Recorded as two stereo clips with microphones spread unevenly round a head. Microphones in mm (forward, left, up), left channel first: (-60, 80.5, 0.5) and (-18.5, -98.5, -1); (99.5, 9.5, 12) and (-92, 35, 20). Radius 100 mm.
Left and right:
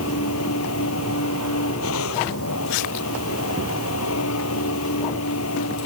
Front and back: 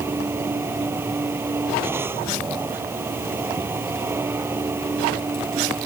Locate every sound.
0.0 s a machine running: 95° left